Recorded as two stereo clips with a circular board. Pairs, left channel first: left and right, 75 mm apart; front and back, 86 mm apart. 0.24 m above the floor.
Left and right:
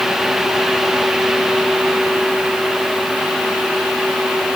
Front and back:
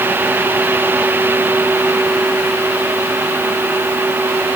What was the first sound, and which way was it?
Only background noise.